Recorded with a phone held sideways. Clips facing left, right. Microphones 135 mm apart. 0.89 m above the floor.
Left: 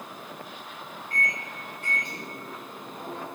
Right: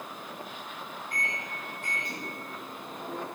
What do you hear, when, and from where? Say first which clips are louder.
1.1 s a microwave: left 5 dB; 65° left (ahead or behind), 1.8 m